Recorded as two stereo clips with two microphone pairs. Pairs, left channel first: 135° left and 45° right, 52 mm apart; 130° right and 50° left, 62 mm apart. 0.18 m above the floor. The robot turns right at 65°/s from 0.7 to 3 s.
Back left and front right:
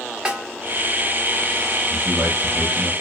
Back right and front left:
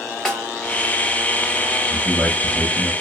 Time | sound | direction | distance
0.2 | a snare drum | 70° right | 1.1 m
1.9 | a man speaking | 95° right | 3.5 m